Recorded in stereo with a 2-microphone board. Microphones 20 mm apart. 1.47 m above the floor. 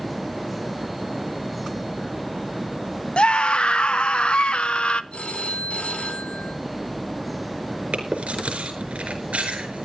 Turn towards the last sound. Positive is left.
turn(degrees=-80)